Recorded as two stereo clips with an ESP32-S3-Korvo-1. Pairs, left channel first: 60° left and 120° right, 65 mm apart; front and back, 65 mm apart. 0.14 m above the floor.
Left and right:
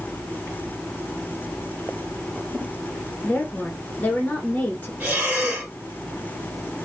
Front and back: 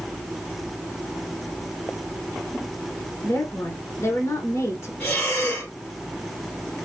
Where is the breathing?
55° right, 2.5 m.